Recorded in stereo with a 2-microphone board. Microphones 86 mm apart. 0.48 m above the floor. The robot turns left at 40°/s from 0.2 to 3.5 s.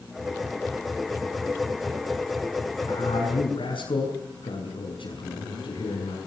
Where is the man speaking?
65° left (ahead or behind), 5.5 m; by 6.2 s 75° left (ahead or behind), 5.5 m.